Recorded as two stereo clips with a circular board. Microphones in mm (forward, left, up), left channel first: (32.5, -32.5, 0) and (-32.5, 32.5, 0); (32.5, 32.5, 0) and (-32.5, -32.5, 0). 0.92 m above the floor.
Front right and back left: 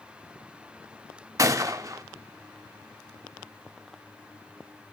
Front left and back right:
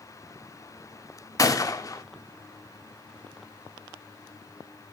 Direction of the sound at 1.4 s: 85° left.